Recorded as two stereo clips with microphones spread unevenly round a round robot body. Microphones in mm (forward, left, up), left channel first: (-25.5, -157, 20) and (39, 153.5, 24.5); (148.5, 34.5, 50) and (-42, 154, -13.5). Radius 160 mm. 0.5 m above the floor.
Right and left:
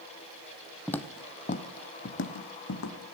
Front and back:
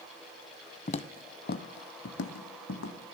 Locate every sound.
0.9 s footsteps: 15° right, 0.6 m; by 3.1 s 60° right, 1.6 m